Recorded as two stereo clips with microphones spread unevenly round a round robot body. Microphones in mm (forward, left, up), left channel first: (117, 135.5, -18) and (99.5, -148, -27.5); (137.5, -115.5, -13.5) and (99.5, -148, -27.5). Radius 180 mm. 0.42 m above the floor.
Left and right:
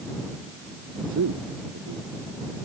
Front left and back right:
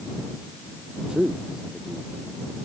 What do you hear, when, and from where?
1.1 s a man speaking: 65° right